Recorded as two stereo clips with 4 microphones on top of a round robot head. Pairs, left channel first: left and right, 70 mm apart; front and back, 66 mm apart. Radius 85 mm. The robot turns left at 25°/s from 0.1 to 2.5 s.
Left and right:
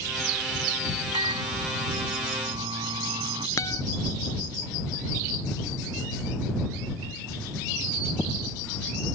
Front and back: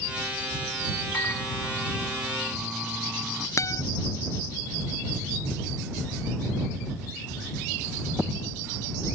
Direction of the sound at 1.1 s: 65° right.